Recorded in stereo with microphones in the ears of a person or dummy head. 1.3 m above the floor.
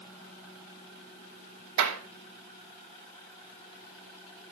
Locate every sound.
1.8 s a clap: 75° right (ahead or behind), 2.5 m